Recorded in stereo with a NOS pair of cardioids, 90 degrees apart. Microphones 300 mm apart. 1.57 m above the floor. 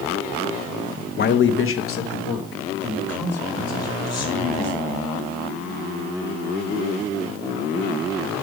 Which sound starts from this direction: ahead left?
A man speaking, at 1.2 s.